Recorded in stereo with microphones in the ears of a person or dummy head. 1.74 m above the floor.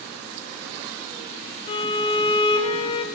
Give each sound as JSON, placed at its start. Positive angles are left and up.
{"t": 1.7, "sound": "a violin", "side_deg": 30, "distance_m": 0.6}